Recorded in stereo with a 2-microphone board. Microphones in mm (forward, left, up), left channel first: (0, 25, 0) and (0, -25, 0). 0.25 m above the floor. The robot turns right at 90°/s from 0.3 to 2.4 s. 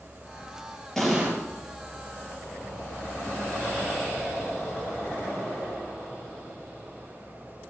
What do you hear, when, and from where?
1.0 s an explosion: 175° left, 3.5 m; by 1.3 s 155° right, 3.5 m